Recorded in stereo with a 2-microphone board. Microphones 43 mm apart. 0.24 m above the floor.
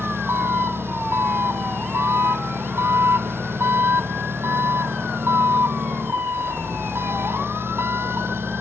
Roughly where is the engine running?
Right.